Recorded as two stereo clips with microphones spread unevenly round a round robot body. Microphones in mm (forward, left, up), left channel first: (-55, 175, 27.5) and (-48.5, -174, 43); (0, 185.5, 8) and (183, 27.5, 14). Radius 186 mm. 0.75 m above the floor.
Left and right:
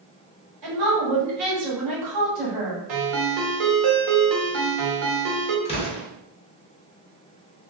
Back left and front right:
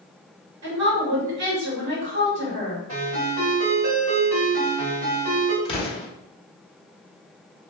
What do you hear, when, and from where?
0.6 s a woman speaking: 50° right, 1.5 m
2.9 s a ringtone: 90° right, 1.4 m
5.7 s an explosion: 125° left, 1.1 m